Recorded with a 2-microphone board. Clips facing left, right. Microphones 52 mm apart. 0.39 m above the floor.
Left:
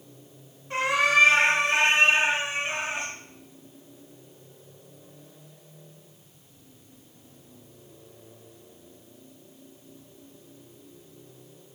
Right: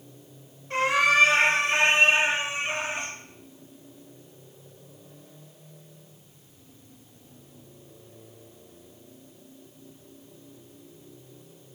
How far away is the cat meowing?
About 1.3 m.